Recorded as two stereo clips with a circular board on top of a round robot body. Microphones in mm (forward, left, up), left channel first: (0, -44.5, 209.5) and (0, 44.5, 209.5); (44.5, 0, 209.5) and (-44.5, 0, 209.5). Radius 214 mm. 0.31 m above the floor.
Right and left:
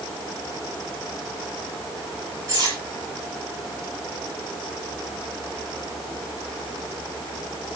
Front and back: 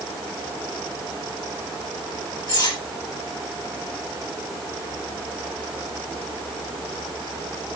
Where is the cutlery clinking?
35° left, 8 m.